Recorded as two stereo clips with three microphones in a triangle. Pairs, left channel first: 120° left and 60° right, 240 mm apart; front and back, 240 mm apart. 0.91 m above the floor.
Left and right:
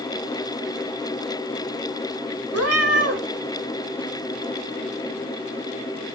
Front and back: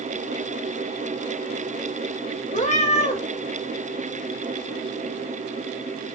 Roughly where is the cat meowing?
Ahead right.